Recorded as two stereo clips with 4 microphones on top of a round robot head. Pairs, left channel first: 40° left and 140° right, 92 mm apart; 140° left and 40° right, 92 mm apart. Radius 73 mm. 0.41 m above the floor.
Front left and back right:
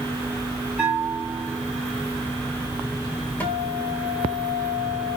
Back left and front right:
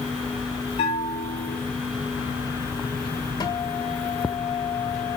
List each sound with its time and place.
0.8 s a bell: 135° left, 4 m
3.4 s a guitar: 110° left, 2.5 m